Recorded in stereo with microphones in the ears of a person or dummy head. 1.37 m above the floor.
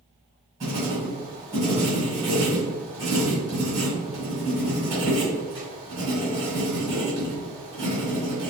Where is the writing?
20° right (ahead or behind), 1.5 m.